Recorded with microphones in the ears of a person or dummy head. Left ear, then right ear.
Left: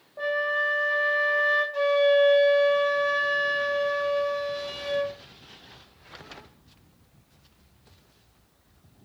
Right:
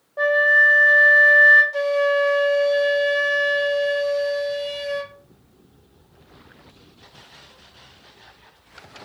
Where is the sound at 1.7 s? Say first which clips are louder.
Right 1 dB; 70° right (ahead or behind), 1.5 m.